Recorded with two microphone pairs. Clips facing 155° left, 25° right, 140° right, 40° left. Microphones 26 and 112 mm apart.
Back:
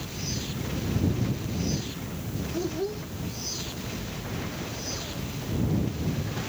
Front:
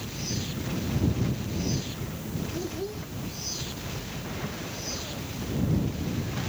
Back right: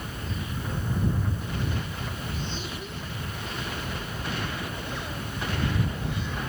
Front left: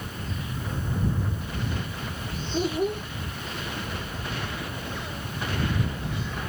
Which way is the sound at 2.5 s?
80° left.